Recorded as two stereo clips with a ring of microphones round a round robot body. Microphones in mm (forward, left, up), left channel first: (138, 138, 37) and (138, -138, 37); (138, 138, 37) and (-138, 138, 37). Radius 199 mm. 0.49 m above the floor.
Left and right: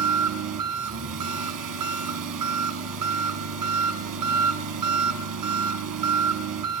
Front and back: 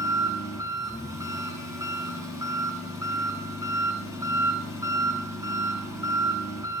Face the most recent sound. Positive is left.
turn(degrees=-100)